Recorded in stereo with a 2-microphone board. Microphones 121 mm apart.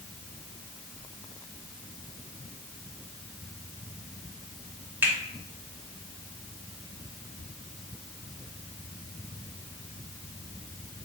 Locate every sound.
5.0 s a finger snap: 15° right (ahead or behind), 1.5 m